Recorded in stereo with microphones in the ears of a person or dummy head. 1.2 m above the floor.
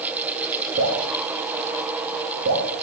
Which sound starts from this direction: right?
Dripping, at 0.8 s.